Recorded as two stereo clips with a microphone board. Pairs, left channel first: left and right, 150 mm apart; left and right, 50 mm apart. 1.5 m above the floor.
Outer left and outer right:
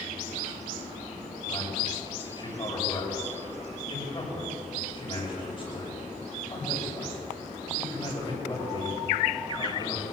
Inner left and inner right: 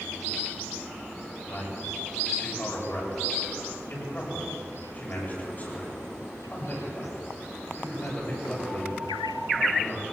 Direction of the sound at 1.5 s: 35° left (ahead or behind).